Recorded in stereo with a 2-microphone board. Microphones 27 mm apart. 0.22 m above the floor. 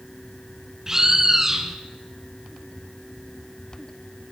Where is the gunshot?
No gunshot in this recording.